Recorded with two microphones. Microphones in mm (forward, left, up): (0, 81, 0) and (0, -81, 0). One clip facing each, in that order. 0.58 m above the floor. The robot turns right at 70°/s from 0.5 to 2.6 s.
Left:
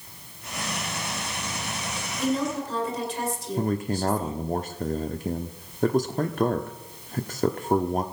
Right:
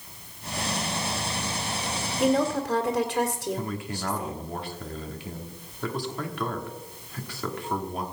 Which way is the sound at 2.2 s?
65° right (ahead or behind).